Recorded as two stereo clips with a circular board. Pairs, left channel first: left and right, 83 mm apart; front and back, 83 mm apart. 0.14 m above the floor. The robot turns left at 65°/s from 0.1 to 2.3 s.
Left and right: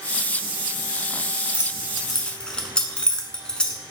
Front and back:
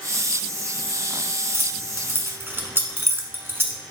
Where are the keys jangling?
150° right, 0.8 m; by 3.8 s 160° left, 0.8 m.